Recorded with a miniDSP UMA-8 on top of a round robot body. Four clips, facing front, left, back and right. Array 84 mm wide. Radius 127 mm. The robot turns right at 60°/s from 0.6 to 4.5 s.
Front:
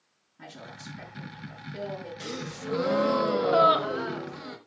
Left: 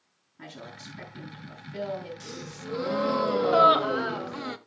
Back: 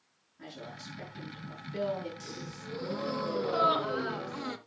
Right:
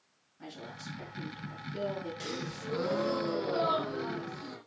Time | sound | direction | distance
0.4 | a woman speaking | 70° left | 7.5 m
2.2 | a gasp | 30° right | 1.2 m